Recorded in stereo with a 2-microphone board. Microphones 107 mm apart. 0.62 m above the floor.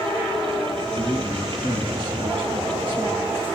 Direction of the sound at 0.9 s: 55° right (ahead or behind).